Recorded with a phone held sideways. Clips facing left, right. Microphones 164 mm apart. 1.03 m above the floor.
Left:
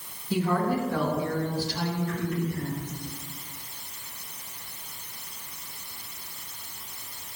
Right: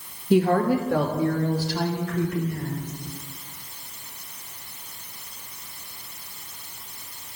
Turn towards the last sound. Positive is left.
turn(degrees=-80)